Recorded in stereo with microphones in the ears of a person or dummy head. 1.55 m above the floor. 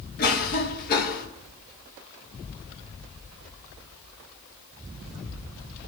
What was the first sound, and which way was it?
A cough, 50° left (ahead or behind).